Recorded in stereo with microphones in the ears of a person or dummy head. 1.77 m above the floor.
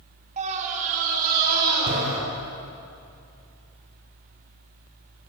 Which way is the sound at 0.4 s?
45° right (ahead or behind).